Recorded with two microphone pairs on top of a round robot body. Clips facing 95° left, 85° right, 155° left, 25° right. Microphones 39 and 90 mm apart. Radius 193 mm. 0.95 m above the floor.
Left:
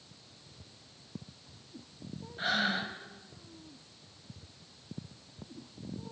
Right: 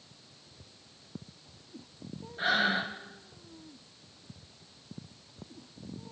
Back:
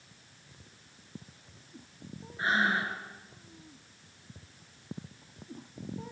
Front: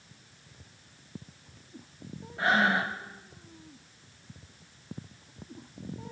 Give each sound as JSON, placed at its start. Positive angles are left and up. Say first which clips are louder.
{"t": 2.4, "sound": "breathing", "louder": "right 3 dB, front 3 dB", "azimuth_deg": 0, "distance_m": 1.3}